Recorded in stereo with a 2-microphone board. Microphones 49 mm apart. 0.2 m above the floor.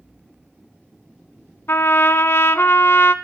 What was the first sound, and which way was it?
A trumpet, 55° left (ahead or behind).